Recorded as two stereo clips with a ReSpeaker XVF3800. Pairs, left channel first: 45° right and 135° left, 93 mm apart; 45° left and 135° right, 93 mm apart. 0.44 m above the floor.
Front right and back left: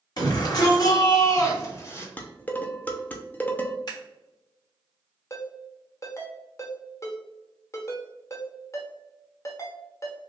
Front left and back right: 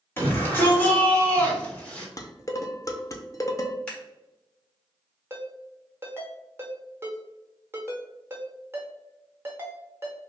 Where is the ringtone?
85° right, 1.0 m.